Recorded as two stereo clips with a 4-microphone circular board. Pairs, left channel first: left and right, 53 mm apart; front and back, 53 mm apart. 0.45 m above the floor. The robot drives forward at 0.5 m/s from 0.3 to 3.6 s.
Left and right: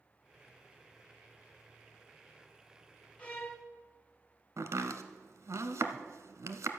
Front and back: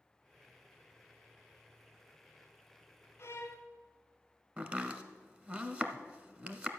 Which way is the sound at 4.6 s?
115° right.